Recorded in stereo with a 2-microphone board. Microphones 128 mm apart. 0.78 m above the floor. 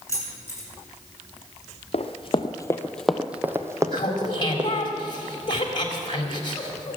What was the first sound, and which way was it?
Keys jangling, 25° left (ahead or behind).